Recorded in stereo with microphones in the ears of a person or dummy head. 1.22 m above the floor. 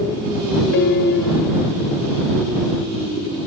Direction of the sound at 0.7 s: 60° left (ahead or behind).